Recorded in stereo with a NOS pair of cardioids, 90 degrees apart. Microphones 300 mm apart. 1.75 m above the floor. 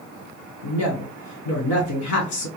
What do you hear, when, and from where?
0.6 s a woman speaking: 70° left, 1.7 m